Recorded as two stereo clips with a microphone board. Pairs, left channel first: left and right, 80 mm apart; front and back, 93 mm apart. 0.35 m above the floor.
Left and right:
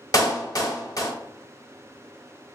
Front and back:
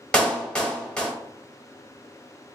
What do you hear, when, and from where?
0.1 s a clap: 75° left, 1.1 m